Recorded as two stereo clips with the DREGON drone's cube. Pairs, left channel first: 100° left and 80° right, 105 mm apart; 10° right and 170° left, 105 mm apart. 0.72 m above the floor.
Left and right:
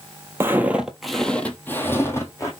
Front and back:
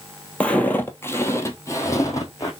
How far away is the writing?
No writing in this recording.